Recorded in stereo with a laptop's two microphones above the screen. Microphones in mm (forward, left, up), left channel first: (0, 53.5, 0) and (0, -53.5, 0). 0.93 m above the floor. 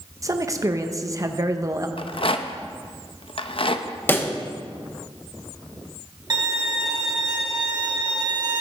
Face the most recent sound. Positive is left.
turn(degrees=-40)  # may be behind; listen again after turning